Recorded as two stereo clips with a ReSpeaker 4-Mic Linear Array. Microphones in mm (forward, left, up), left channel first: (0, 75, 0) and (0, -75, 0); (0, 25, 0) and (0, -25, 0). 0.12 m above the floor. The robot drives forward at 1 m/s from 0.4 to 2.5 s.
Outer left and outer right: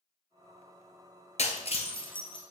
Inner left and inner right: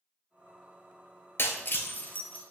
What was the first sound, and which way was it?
Breaking glass, 50° left (ahead or behind).